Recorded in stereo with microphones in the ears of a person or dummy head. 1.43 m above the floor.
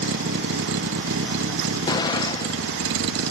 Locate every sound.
0.0 s a vehicle: 65° right (ahead or behind); by 3.3 s 75° right (ahead or behind)
1.9 s an explosion: 20° left (ahead or behind)